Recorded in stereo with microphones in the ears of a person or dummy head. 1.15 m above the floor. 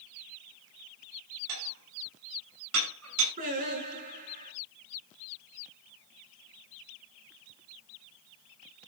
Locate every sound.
1.5 s dishes clattering: 85° right, 6 m
3.4 s singing: 45° right (ahead or behind), 7 m